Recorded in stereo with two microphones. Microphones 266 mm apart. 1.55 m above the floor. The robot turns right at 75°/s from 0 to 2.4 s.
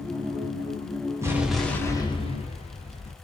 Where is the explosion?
10° right (ahead or behind), 0.5 m; by 3.1 s 25° left (ahead or behind), 0.5 m.